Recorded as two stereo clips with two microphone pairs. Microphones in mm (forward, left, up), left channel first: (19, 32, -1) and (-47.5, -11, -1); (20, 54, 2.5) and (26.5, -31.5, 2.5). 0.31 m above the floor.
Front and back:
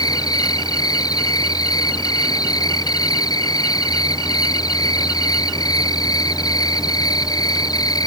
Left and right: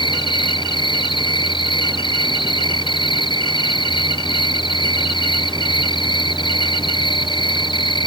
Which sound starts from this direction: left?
An insect, at 0.0 s.